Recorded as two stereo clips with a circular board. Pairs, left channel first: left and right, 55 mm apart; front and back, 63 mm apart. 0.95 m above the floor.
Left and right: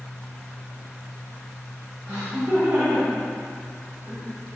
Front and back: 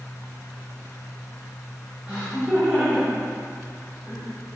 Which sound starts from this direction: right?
Laughter, at 2.1 s.